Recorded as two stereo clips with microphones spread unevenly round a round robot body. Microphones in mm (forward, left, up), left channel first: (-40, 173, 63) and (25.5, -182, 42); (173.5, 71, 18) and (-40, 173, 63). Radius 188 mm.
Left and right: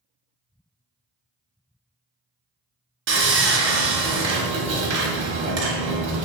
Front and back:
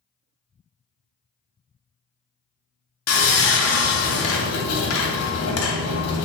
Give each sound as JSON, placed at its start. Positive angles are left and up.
{"t": 3.1, "sound": "sawing", "azimuth_deg": -20, "distance_m": 0.8}